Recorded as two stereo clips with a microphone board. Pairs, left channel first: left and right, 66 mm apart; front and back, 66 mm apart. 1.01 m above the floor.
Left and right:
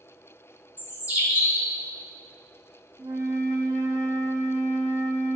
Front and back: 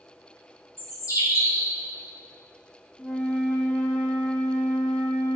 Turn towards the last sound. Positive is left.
turn(degrees=-65)